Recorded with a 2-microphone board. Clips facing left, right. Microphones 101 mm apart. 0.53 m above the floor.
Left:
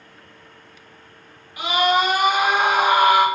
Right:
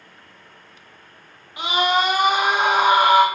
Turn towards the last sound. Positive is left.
turn(degrees=-25)  # may be behind; listen again after turning